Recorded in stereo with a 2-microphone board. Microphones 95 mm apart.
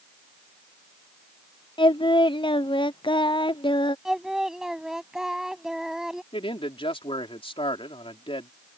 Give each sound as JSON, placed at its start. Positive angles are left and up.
{"t": 1.8, "sound": "singing", "side_deg": 60}
{"t": 4.0, "sound": "singing", "side_deg": -5}
{"t": 6.3, "sound": "a man speaking", "side_deg": 80}